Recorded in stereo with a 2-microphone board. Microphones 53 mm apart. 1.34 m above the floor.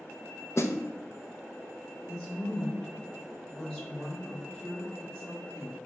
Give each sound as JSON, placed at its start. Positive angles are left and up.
{"t": 0.6, "sound": "a snare drum", "side_deg": 60, "distance_m": 0.7}
{"t": 2.1, "sound": "a woman speaking", "side_deg": 10, "distance_m": 3.0}